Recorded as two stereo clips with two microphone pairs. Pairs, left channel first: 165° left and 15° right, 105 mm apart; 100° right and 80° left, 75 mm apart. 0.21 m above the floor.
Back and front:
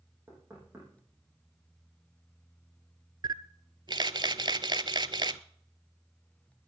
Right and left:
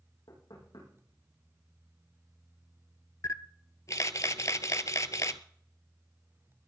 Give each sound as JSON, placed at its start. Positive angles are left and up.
{"t": 0.3, "sound": "knocking", "azimuth_deg": -85, "distance_m": 8.5}
{"t": 3.2, "sound": "a camera shutter", "azimuth_deg": -55, "distance_m": 0.6}